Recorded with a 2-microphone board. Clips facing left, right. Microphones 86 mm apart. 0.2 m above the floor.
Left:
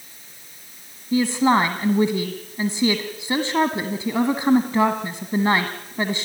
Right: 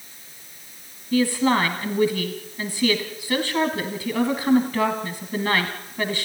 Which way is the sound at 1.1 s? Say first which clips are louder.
Left 2 dB; 25° left (ahead or behind).